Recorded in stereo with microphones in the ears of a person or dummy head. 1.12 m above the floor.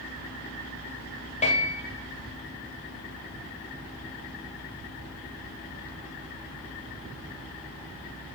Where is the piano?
30° left (ahead or behind), 1.2 m.